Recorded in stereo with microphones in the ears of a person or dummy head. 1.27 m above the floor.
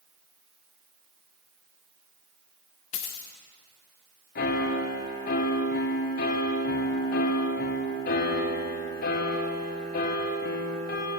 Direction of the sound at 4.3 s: 45° left (ahead or behind).